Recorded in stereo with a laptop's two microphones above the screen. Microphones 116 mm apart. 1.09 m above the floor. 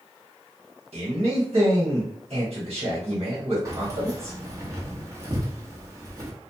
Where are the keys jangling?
30° right (ahead or behind), 1.0 m.